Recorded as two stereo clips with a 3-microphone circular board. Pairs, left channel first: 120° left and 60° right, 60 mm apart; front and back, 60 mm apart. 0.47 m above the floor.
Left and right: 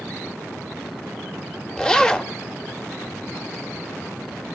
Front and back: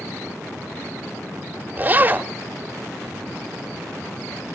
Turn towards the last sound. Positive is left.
turn(degrees=180)